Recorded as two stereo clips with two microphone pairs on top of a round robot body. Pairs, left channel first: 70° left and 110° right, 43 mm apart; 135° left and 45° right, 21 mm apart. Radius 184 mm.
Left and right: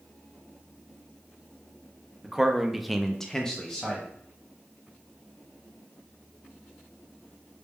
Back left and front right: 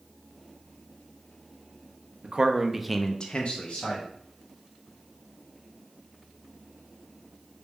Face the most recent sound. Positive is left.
turn(degrees=150)